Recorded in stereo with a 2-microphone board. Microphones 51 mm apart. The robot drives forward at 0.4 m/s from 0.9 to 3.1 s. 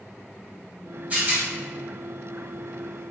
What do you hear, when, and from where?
1.1 s a rattle: 30° right (ahead or behind), 1.0 m; by 1.4 s 35° right (ahead or behind), 0.9 m